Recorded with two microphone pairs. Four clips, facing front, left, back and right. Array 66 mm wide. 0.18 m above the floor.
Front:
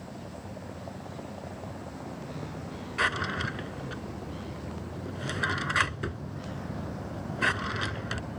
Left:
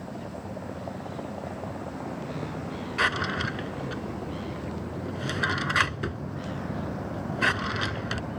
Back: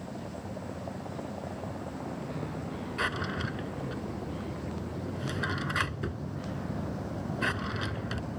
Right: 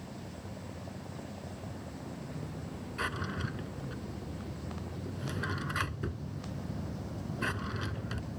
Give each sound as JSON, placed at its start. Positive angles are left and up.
{"t": 0.0, "sound": "a vehicle", "azimuth_deg": 95}
{"t": 3.0, "sound": "a drawer", "azimuth_deg": 60}